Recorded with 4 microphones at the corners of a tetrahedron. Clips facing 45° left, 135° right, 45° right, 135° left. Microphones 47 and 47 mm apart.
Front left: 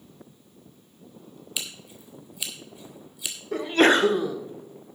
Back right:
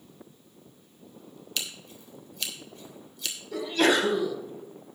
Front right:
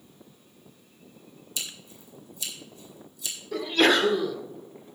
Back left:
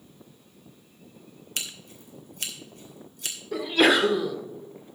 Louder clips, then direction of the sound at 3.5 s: Front left 4 dB, back left 1 dB; 55° left.